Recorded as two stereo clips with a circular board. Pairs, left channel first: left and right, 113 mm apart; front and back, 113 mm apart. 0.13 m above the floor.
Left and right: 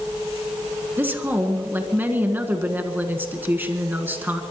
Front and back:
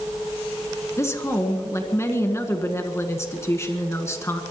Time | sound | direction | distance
1.0 | a woman speaking | 35° right | 1.6 m